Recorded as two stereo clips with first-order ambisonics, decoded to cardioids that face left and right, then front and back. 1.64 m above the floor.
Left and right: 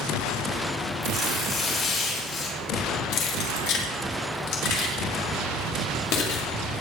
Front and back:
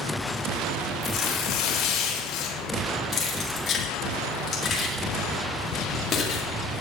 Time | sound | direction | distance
1.0 | tearing paper | 30° left | 3.5 m
3.1 | keys jangling | 65° left | 2 m